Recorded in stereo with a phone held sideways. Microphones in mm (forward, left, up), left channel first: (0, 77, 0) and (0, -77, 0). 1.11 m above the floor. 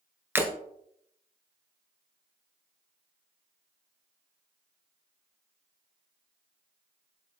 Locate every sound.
0.3 s breaking glass: 15° right (ahead or behind), 1.6 m